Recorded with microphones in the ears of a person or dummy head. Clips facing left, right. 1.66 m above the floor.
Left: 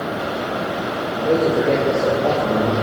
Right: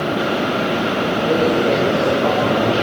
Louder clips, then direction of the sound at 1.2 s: Left 1 dB; 20° left (ahead or behind).